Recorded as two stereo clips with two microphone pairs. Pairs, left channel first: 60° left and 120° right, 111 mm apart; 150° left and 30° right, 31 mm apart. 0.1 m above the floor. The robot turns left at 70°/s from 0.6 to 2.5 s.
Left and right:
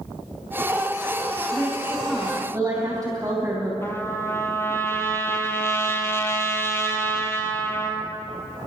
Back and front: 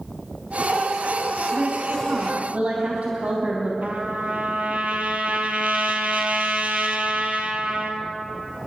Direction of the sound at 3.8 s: 5° right.